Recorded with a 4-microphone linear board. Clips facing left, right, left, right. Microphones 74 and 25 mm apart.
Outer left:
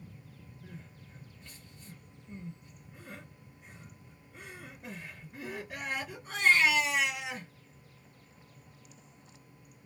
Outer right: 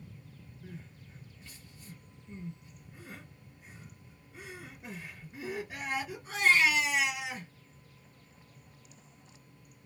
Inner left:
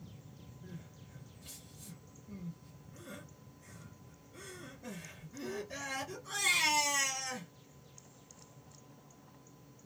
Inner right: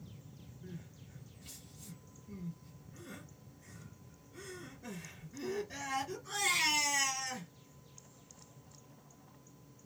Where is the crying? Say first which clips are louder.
Outer right 2 dB, inner right 2 dB; 5° right (ahead or behind), 3 m.